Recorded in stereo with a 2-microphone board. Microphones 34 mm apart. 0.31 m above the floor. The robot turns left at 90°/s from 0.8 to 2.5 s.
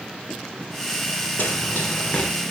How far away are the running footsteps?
About 3 m.